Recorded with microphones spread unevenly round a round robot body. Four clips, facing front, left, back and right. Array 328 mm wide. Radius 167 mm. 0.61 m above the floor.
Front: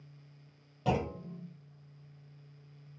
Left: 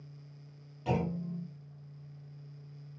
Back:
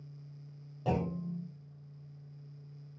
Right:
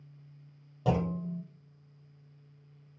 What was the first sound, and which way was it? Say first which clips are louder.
A clunk: right 3 dB, front 1 dB; 80° right.